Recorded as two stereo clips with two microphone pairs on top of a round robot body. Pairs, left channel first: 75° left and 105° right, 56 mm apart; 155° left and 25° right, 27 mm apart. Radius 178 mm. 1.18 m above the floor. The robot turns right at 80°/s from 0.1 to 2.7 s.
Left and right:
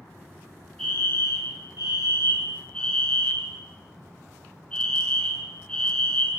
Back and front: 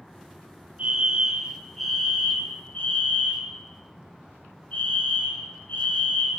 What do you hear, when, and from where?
0.8 s a fire alarm: straight ahead, 6 m; by 6.4 s 150° left, 6 m